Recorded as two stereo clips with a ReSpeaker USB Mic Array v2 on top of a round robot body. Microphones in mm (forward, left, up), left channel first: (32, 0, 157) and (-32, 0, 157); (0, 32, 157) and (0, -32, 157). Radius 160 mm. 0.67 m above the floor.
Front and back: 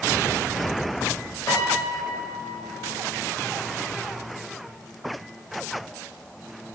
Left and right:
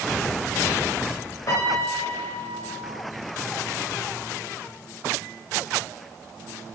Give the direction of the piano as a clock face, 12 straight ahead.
10 o'clock.